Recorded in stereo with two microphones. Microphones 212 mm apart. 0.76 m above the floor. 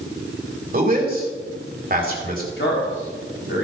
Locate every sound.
0.7 s a man speaking: 45° right (ahead or behind), 3.5 m
2.6 s a man speaking: 60° left (ahead or behind), 3.5 m